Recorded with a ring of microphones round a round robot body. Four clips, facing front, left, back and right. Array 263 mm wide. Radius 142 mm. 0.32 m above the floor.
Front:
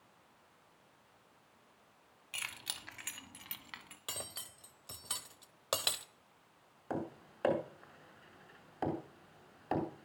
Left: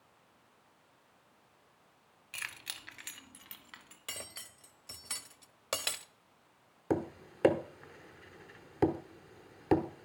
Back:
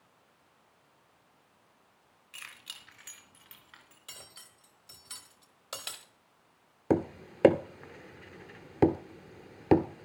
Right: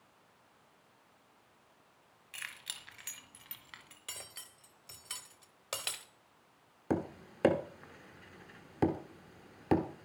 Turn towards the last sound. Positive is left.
turn(degrees=175)